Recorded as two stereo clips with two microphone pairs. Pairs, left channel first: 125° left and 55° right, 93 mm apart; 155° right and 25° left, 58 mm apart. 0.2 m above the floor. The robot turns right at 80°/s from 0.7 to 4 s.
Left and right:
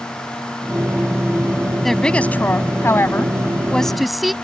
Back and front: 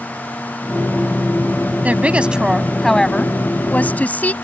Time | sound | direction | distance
1.8 | a woman speaking | 40° left | ?